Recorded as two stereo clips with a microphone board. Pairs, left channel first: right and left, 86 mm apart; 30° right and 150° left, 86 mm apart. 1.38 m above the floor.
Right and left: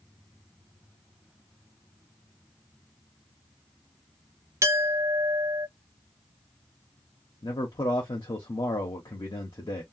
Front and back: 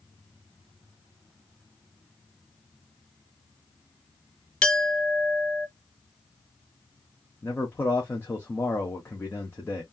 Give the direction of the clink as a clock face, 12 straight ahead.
11 o'clock.